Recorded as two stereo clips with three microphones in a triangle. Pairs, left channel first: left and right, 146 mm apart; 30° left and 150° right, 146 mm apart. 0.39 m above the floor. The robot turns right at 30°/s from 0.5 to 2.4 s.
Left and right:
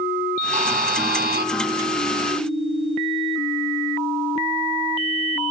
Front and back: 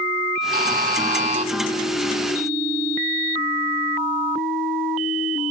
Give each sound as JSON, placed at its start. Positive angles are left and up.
{"t": 0.5, "sound": "a buzzer", "azimuth_deg": -130, "distance_m": 0.8}